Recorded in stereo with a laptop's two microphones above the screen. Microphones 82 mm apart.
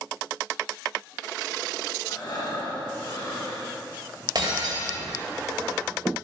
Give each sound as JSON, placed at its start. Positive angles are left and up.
{"t": 2.0, "sound": "breathing", "side_deg": 60, "distance_m": 3.5}
{"t": 4.3, "sound": "breaking glass", "side_deg": -55, "distance_m": 2.5}